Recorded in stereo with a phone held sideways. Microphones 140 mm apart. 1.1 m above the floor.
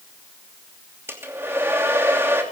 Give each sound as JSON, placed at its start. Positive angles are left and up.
{"t": 1.1, "sound": "a hair dryer", "side_deg": -20, "distance_m": 2.5}